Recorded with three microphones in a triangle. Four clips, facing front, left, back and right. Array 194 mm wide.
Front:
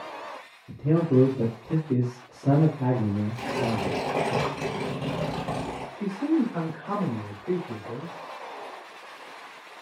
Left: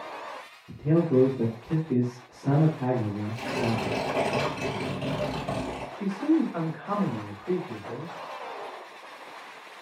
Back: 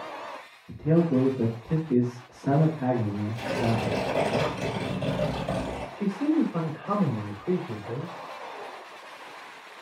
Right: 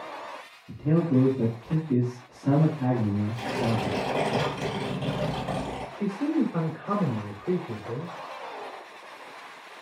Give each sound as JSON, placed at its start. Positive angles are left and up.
{"t": 0.7, "sound": "a man speaking", "azimuth_deg": 0, "distance_m": 1.5}
{"t": 3.4, "sound": "tearing paper", "azimuth_deg": -15, "distance_m": 2.0}
{"t": 6.0, "sound": "a man speaking", "azimuth_deg": -120, "distance_m": 1.2}